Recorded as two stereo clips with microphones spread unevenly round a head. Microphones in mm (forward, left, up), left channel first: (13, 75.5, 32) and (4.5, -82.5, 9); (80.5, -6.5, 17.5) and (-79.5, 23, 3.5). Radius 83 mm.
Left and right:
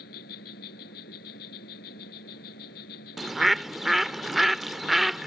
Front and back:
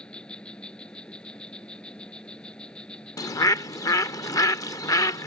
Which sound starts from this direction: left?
An insect, at 0.0 s.